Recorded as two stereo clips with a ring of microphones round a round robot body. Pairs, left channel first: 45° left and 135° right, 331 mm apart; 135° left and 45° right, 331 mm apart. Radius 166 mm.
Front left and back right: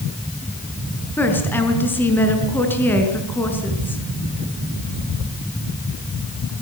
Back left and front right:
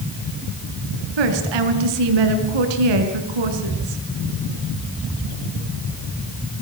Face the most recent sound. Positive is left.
turn(degrees=-40)